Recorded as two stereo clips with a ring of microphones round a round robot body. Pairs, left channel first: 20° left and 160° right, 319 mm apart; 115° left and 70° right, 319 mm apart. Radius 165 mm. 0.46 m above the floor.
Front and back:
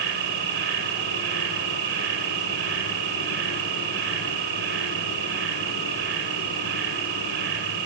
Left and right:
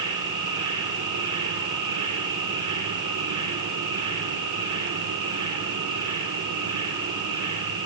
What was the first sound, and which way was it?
An insect, 100° right.